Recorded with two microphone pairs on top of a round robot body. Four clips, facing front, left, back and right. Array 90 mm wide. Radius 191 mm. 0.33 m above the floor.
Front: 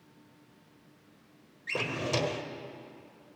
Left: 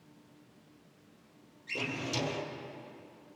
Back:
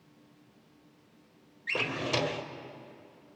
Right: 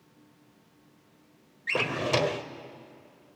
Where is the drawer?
90° right, 1.3 m.